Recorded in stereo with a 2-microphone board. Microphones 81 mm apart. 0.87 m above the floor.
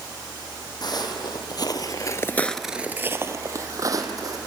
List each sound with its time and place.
0.8 s footsteps: 60° left (ahead or behind), 2.5 m; by 4.4 s 50° right (ahead or behind), 3 m